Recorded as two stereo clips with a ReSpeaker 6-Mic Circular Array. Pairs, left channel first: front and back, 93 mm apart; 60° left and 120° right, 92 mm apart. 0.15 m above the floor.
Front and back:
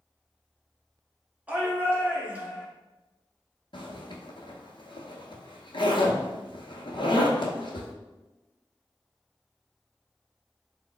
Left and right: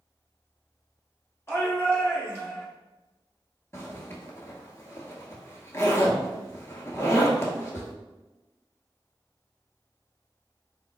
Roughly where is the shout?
Left.